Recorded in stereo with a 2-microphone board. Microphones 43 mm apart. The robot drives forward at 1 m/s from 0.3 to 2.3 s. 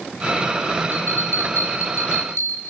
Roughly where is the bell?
Left.